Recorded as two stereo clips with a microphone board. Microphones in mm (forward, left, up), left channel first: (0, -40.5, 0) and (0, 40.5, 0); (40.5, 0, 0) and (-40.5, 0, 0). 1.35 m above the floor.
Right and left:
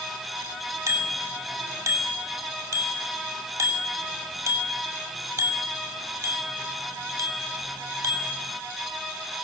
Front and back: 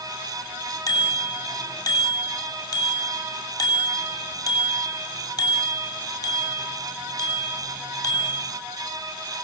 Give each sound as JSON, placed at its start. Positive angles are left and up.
{"t": 0.9, "sound": "a bicycle bell", "azimuth_deg": 40, "distance_m": 6.5}